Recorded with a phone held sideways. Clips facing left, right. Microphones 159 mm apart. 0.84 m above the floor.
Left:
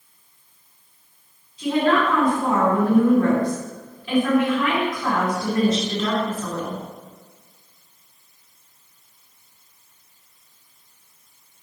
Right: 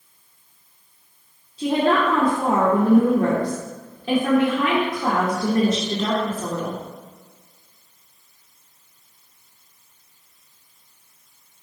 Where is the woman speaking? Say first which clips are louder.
Even; 55° right (ahead or behind), 2 m.